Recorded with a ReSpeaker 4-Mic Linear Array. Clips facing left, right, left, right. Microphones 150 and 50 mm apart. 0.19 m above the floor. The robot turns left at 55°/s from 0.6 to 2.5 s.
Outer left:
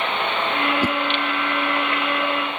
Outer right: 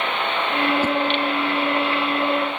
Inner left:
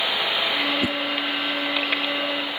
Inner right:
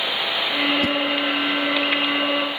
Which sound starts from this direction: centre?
A whoosh, at 0.8 s.